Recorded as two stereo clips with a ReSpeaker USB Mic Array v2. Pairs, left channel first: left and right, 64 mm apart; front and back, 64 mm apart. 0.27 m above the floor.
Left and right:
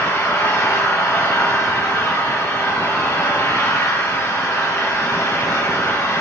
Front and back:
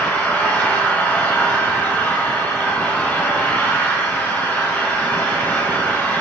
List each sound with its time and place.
0.0 s an engine running: 70° left, 6.5 m